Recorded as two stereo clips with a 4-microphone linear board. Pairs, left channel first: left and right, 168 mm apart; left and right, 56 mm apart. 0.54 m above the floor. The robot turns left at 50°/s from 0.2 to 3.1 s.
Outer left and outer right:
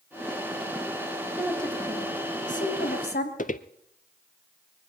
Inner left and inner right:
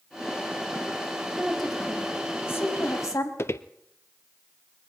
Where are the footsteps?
50° left (ahead or behind), 0.8 m.